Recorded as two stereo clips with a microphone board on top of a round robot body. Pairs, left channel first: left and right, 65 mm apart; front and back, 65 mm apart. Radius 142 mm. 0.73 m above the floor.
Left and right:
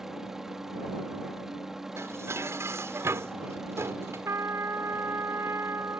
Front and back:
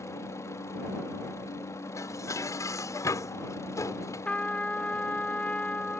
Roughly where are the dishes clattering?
Ahead right.